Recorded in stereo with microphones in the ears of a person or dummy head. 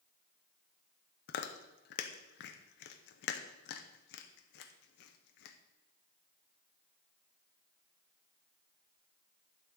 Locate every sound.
1.3 s chewing: 70° left (ahead or behind), 0.8 m